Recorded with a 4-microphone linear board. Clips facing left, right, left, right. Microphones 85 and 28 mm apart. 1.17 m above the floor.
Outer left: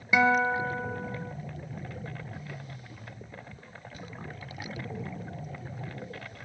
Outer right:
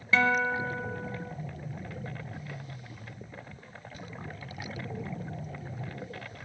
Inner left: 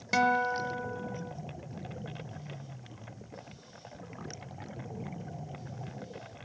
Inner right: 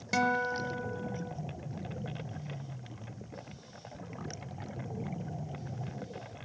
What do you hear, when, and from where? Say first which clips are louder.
0.1 s a guitar: outer left 2 dB, inner left 3 dB; 15° left (ahead or behind), 1.0 m